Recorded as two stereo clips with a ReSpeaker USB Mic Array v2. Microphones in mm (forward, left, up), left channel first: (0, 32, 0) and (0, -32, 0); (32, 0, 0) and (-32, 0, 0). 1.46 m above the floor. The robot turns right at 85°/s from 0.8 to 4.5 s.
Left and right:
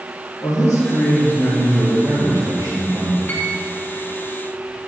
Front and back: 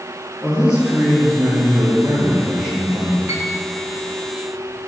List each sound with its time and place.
0.4 s a man speaking: 105° left, 3 m; by 3.2 s 55° right, 3 m
3.3 s a piano: 150° left, 1.7 m; by 3.5 s 170° left, 1.7 m